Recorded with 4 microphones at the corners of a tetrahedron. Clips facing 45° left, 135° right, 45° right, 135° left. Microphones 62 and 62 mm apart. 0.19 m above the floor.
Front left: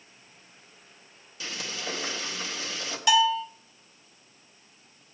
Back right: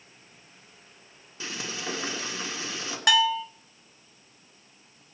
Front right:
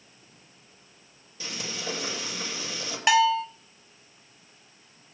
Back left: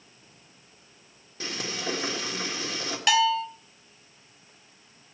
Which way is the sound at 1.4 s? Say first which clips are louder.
Back right 1 dB, back left 3 dB; 165° left.